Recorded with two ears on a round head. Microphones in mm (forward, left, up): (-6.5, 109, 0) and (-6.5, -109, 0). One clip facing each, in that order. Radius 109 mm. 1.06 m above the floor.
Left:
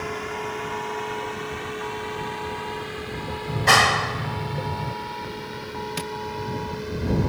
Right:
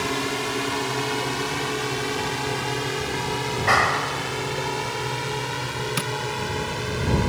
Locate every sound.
0.0 s a drone: 55° right (ahead or behind); by 7.3 s 70° right (ahead or behind)
3.5 s a clap: 55° left (ahead or behind)
6.0 s tapping: 10° right (ahead or behind)